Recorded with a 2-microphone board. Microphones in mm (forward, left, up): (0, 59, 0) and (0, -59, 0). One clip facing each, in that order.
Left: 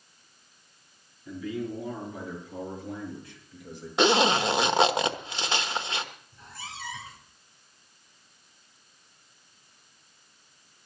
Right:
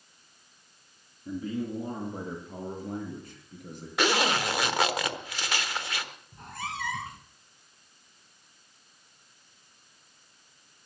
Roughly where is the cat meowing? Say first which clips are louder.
Right 10 dB; right.